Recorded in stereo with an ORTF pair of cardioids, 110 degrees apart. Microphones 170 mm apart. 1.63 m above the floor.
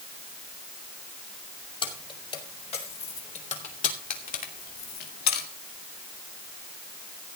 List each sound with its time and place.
1.8 s keys jangling: 30° left, 4.5 m; by 5.5 s 80° left, 2.5 m